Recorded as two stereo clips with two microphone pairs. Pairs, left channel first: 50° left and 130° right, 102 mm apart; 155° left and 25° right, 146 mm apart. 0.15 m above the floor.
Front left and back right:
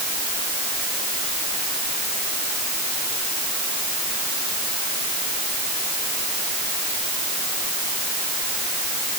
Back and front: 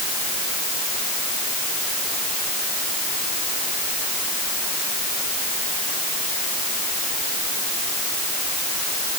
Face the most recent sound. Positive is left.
No sound to turn to.